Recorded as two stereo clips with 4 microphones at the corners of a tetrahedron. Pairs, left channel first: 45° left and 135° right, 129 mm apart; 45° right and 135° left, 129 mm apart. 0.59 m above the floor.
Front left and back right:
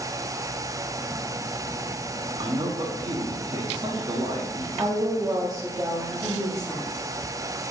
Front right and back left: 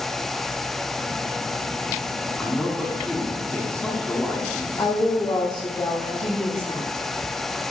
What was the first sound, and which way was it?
A man speaking, 125° right.